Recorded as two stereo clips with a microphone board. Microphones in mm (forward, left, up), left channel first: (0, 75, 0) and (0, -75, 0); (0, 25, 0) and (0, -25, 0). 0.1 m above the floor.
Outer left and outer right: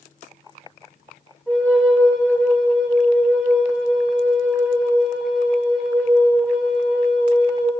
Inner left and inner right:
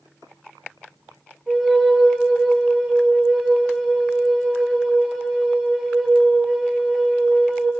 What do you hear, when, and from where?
1.5 s a flute: centre (ahead or behind), 2.5 m